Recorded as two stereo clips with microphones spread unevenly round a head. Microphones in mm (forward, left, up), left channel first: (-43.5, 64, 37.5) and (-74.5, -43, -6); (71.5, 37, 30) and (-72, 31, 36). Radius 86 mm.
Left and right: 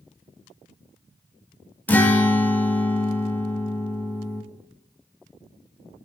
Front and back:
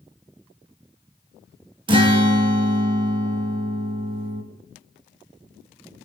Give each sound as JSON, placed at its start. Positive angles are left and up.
{"t": 1.9, "sound": "a guitar", "azimuth_deg": 130, "distance_m": 0.9}